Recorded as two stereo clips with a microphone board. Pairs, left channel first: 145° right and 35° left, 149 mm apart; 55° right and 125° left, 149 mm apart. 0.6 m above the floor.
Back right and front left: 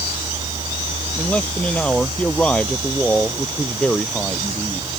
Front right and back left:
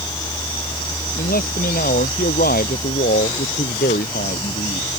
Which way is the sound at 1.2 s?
65° right.